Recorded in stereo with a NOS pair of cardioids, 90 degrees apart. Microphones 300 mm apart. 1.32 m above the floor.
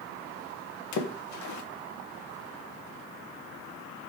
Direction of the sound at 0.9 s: 70° left.